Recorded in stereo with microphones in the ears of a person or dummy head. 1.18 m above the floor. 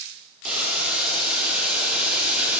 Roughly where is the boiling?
Centre.